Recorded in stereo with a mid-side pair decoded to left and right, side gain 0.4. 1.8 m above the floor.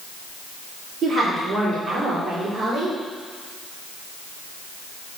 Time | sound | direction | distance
1.0 | a woman speaking | 40° right | 4.5 m